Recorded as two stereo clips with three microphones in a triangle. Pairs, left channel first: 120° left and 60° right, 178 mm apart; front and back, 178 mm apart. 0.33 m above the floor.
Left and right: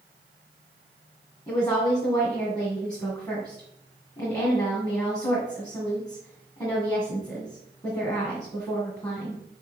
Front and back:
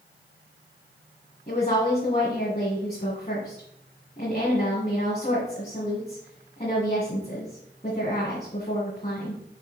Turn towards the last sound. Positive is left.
turn(degrees=50)